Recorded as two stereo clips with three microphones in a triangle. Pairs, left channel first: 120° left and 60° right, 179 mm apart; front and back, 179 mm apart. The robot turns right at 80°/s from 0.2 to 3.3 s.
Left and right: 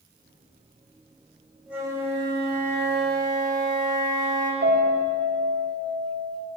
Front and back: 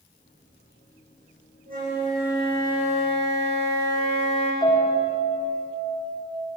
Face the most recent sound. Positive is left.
turn(degrees=-65)